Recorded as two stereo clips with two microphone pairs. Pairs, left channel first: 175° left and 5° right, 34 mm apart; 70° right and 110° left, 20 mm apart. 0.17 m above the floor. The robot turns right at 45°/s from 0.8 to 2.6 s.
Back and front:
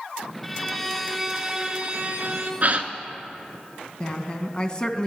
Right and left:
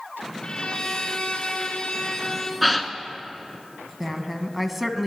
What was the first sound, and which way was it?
A violin, 100° right.